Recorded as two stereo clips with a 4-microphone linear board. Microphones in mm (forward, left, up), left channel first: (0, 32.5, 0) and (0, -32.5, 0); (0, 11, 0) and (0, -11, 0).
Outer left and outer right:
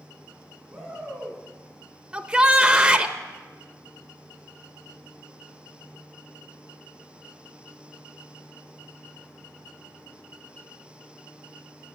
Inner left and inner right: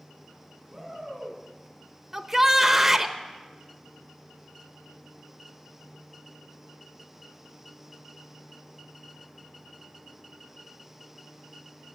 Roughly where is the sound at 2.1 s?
Centre.